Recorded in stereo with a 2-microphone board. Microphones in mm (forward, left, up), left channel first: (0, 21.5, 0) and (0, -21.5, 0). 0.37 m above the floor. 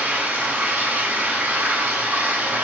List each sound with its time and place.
0.0 s running water: 50° right (ahead or behind), 0.8 m